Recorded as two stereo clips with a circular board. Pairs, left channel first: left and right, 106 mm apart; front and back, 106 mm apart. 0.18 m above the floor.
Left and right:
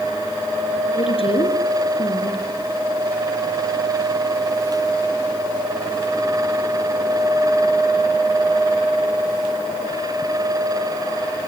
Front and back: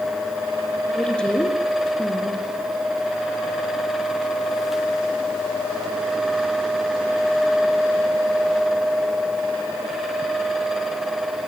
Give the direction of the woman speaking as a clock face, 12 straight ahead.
9 o'clock.